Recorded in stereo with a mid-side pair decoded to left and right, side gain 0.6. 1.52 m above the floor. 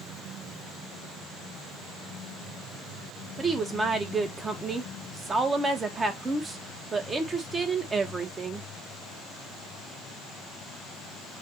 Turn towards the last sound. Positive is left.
turn(degrees=-25)